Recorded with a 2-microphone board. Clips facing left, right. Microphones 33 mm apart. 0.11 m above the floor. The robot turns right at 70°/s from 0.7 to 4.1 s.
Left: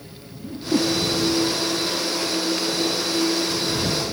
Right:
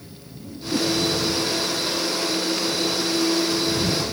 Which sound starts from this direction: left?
A whoosh, at 0.4 s.